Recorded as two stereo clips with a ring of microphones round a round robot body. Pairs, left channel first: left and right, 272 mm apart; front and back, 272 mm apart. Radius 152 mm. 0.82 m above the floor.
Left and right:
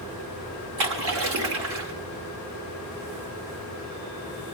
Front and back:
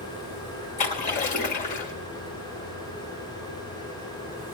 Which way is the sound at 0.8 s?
60° right.